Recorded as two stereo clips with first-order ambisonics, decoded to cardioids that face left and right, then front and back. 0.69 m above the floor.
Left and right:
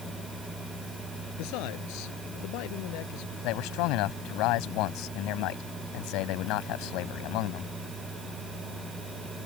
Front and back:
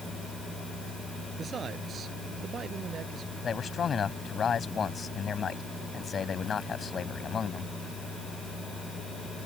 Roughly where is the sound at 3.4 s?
Ahead left.